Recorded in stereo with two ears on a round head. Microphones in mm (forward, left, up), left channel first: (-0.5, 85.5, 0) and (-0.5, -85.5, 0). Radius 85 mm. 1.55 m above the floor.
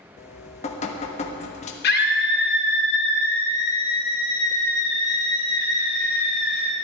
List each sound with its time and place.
0.2 s dripping: 35° left (ahead or behind), 1.1 m
1.8 s a scream: 55° left (ahead or behind), 1.9 m